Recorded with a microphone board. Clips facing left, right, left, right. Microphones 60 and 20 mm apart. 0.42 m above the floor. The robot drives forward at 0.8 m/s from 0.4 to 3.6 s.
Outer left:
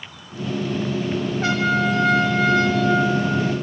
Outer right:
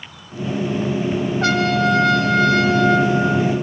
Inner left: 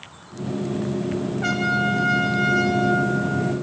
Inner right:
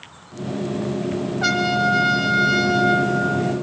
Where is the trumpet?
70° right (ahead or behind), 3 m; by 3.5 s 80° right, 3 m.